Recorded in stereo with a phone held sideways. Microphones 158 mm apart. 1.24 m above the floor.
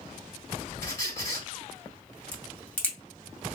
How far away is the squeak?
About 2.5 m.